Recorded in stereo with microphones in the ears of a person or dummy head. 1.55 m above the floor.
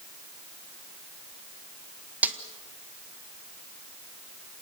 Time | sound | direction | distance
2.2 | a snare drum | 10° right (ahead or behind) | 1.6 m